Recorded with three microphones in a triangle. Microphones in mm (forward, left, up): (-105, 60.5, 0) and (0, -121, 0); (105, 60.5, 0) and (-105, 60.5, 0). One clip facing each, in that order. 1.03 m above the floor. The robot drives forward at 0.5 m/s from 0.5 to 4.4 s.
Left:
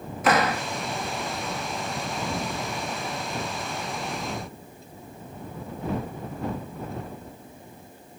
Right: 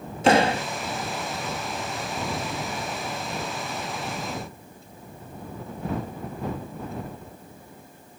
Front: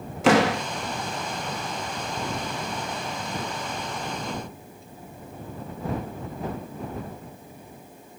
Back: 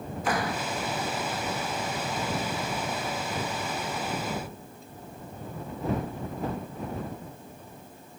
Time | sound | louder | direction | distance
0.2 | a door slam | right 4 dB, front 11 dB | straight ahead | ?